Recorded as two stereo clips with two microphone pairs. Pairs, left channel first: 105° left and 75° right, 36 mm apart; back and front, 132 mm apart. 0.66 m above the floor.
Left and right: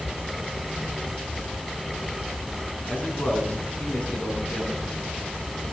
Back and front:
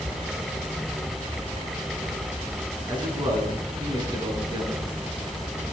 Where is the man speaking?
60° left, 6 m.